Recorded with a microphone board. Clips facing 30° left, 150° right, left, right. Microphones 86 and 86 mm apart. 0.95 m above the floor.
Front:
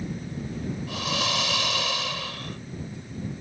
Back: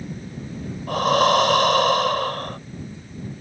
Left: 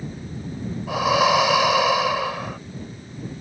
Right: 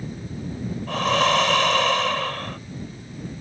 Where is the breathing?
170° left.